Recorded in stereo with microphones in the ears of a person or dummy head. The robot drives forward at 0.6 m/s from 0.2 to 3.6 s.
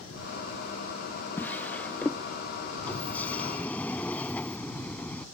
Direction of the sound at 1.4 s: 10° left (ahead or behind).